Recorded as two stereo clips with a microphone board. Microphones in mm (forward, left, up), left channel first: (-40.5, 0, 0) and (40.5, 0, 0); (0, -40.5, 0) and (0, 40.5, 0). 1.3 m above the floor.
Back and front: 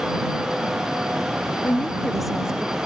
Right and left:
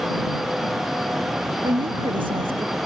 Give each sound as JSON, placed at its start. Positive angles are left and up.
{"t": 1.6, "sound": "a woman speaking", "azimuth_deg": 110}